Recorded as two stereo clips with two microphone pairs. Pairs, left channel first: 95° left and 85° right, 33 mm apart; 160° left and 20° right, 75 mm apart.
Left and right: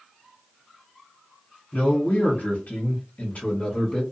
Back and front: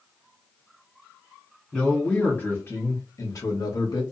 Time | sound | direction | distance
1.7 | a man speaking | 75° left | 1.2 m